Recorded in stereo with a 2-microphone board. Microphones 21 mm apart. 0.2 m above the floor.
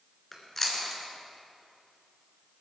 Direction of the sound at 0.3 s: 15° left (ahead or behind).